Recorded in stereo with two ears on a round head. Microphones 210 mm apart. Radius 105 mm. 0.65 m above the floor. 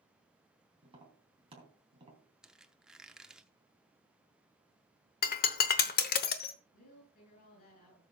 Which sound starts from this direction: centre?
A squeak, at 2.4 s.